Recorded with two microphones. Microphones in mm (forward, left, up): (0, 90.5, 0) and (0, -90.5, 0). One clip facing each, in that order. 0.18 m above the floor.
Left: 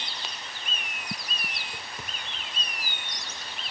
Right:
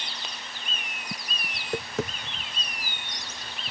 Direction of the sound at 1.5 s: 85° right.